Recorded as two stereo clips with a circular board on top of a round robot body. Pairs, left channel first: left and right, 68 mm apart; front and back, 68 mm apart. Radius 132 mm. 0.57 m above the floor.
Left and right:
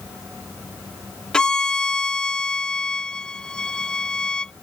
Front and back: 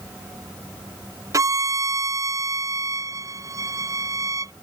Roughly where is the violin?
Behind.